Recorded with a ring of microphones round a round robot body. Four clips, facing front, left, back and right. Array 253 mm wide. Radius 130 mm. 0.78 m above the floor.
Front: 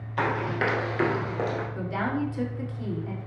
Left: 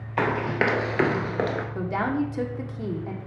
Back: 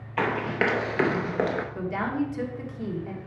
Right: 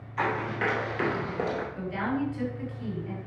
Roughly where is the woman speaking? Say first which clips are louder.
Left 4 dB, back 1 dB; left.